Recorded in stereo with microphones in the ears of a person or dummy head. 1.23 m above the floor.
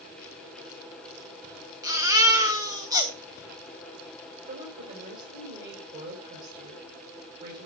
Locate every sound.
1.8 s a baby crying: 25° right (ahead or behind), 1.4 m
4.5 s a woman speaking: 55° right (ahead or behind), 4.5 m